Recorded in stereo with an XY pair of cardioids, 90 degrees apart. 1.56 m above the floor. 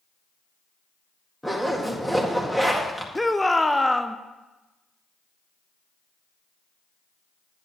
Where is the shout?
10° left, 0.6 m.